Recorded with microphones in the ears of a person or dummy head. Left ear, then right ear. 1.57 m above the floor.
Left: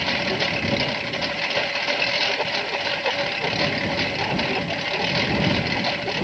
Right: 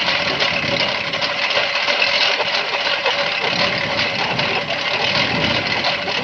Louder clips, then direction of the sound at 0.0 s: Right 5 dB; 40° right (ahead or behind).